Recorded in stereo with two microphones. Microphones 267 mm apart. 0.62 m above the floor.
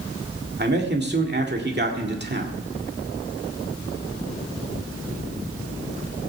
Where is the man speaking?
40° right (ahead or behind), 1.9 m.